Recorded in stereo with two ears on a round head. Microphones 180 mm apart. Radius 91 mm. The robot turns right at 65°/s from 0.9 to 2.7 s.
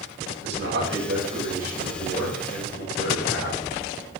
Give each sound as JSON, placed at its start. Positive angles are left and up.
{"t": 0.4, "sound": "a man speaking", "azimuth_deg": -60, "distance_m": 4.0}